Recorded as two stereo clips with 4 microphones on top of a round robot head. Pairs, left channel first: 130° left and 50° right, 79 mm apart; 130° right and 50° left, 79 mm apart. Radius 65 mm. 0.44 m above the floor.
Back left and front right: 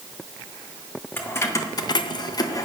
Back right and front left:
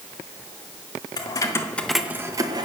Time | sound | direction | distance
1.2 | keys jangling | 165° right | 1.4 m